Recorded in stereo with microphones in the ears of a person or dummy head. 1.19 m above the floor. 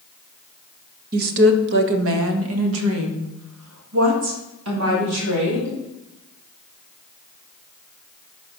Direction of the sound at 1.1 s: 45° right (ahead or behind).